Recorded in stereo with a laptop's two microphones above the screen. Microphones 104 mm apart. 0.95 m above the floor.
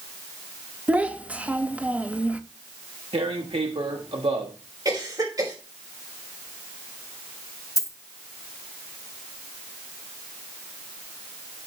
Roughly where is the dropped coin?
Left.